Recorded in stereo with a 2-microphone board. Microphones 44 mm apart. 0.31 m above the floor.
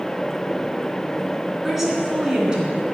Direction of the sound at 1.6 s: 5° right (ahead or behind).